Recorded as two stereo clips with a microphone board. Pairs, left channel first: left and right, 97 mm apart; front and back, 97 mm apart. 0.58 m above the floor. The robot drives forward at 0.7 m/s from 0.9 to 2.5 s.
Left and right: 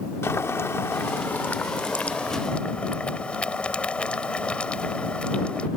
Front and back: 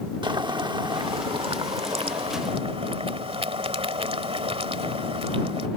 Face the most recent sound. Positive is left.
turn(degrees=170)